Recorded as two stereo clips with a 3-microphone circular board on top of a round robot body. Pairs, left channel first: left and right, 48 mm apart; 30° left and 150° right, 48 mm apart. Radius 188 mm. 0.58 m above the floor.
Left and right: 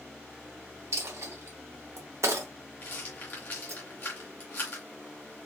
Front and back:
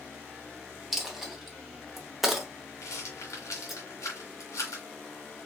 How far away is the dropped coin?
About 0.8 m.